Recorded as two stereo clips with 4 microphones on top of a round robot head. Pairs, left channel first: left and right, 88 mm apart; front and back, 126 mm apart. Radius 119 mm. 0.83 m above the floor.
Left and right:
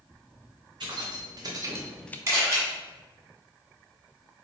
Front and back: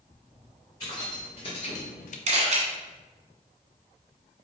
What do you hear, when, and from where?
0.8 s keys jangling: 60° right, 1.9 m; by 2.2 s 25° left, 0.5 m
2.3 s a camera shutter: 145° right, 1.5 m